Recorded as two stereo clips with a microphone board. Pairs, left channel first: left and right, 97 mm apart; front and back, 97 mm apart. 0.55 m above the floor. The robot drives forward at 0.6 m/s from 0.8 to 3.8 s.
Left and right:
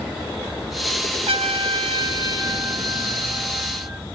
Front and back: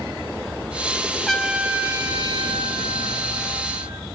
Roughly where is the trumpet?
Right.